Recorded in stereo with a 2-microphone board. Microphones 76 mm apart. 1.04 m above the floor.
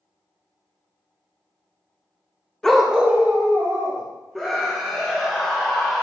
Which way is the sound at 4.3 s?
5° left (ahead or behind).